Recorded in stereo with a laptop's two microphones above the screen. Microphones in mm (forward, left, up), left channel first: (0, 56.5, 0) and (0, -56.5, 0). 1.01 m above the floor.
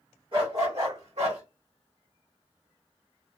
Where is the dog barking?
50° right (ahead or behind), 1.5 m; by 1.4 s 70° right (ahead or behind), 1.6 m.